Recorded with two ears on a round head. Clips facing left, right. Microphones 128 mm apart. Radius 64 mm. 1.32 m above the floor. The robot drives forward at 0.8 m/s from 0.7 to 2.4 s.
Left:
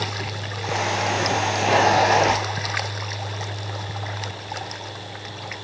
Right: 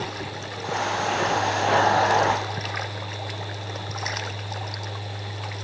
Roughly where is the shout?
No shout in this recording.